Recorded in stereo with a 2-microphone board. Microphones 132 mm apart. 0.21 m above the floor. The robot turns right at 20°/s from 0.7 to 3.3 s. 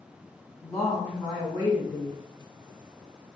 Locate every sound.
0.6 s a woman speaking: 20° left (ahead or behind), 1.9 m; by 2.2 s 30° left (ahead or behind), 1.9 m